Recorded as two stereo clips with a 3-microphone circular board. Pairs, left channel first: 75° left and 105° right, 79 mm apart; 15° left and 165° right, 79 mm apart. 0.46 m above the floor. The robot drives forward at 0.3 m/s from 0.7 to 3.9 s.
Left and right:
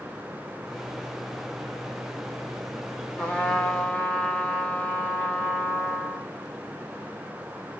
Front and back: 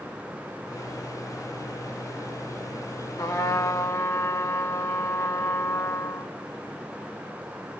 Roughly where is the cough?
I don't hear a cough.